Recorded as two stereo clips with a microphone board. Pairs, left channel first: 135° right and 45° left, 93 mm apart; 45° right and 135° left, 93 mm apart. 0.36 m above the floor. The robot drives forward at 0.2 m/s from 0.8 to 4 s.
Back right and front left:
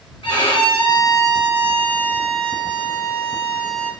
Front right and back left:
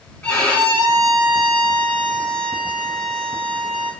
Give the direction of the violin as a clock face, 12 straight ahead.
4 o'clock.